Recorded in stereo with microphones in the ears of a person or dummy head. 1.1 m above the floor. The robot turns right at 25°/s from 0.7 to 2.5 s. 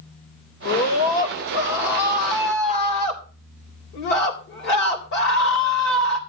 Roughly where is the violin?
I don't hear a violin.